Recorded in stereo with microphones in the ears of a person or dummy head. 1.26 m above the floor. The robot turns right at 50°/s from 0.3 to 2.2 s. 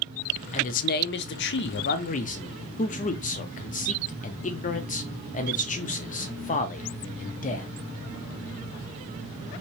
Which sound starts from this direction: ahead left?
A man speaking, at 0.5 s.